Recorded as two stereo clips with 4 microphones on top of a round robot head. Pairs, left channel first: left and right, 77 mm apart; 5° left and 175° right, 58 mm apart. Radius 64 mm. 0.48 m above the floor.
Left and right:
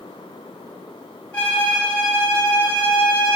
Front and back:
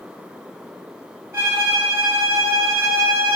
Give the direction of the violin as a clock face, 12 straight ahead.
7 o'clock.